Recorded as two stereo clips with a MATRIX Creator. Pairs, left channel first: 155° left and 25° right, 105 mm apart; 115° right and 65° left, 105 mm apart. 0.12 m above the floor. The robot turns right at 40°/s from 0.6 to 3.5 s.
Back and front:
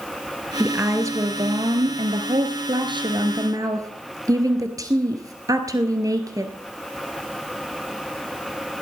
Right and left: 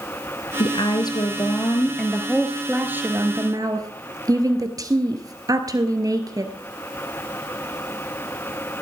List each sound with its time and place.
0.6 s a woman speaking: 95° right, 1.7 m; by 6.5 s 25° left, 1.7 m